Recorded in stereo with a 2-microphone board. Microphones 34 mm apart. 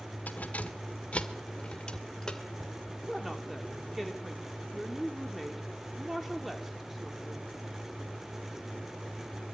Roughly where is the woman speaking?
Centre.